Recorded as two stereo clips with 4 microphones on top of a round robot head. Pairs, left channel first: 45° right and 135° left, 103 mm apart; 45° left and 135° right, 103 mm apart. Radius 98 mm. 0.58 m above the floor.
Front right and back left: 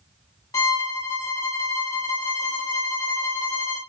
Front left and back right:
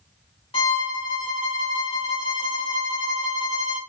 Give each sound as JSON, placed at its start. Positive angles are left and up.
{"t": 0.5, "sound": "a violin", "azimuth_deg": 15, "distance_m": 1.9}